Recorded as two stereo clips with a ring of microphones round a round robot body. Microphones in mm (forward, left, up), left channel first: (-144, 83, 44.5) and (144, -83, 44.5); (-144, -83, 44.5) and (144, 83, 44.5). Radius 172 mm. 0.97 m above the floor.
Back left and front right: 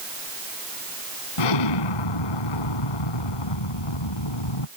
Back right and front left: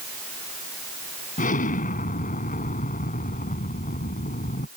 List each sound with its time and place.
1.4 s an explosion: 140° left